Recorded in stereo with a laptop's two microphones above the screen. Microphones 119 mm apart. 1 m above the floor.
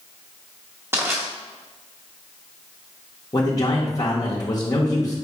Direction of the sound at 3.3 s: 35° left (ahead or behind).